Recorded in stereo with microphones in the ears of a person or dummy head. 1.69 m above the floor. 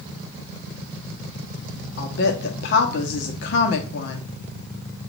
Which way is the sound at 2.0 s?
70° left (ahead or behind).